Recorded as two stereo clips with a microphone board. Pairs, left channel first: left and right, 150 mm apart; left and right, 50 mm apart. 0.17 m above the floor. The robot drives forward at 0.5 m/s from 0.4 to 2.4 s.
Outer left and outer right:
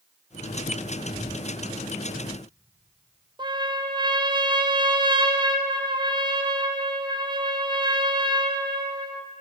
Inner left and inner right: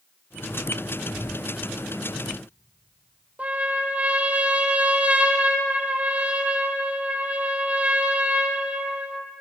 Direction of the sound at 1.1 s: 75° left (ahead or behind).